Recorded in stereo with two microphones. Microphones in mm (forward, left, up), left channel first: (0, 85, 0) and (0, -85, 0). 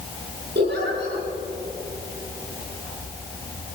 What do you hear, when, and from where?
0.6 s a giggle: 80° right, 9.5 m